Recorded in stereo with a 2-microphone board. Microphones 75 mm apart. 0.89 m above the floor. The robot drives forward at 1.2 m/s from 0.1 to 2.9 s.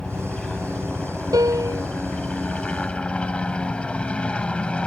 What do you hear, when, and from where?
0.0 s a helicopter: 15° left (ahead or behind)
1.3 s a piano: 60° right (ahead or behind); by 1.9 s 55° right (ahead or behind)